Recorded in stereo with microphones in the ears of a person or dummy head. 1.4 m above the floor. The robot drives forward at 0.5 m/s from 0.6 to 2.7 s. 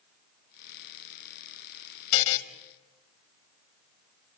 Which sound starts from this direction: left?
A buzzer, at 2.1 s.